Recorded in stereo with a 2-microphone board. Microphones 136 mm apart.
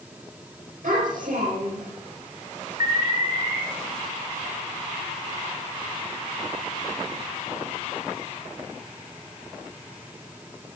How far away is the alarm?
About 3 m.